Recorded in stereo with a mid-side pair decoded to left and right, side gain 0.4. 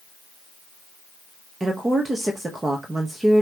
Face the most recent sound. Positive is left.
turn(degrees=-25)